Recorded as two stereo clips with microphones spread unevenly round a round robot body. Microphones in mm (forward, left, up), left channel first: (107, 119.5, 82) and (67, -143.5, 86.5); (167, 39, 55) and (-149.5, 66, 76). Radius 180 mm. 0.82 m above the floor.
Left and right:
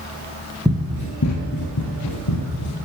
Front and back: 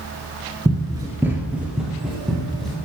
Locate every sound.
0.7 s running footsteps: 160° right, 0.8 m; by 2.8 s 85° left, 3 m